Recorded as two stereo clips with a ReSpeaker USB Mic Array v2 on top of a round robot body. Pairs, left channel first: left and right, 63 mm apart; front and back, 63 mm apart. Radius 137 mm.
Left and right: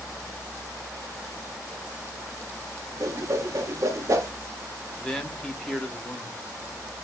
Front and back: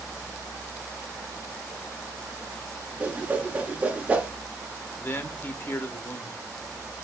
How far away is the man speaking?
About 1.0 m.